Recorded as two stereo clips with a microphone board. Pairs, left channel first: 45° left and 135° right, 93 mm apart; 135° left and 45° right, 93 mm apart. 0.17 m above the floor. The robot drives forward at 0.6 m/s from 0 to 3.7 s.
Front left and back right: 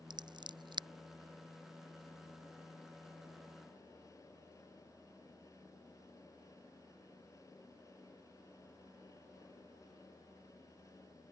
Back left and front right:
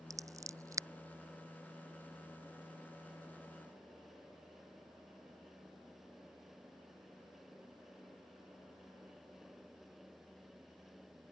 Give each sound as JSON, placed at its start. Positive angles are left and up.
{"t": 0.1, "sound": "scissors", "azimuth_deg": -95}